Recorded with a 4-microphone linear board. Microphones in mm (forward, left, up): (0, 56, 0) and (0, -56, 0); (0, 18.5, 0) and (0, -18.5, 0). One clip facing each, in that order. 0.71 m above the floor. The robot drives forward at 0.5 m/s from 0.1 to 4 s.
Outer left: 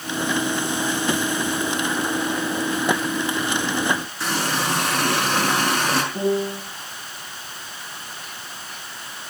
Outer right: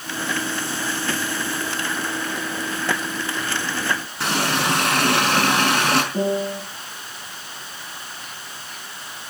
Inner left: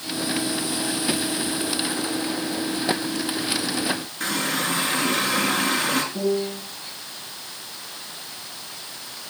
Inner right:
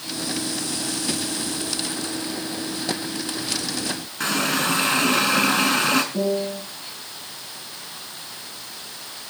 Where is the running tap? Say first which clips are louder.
Outer right 2 dB, inner right 4 dB; 60° right (ahead or behind), 5 m.